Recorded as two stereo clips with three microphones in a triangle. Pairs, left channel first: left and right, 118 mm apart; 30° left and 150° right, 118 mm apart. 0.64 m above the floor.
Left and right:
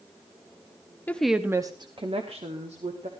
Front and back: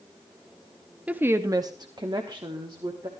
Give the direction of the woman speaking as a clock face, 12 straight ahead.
7 o'clock.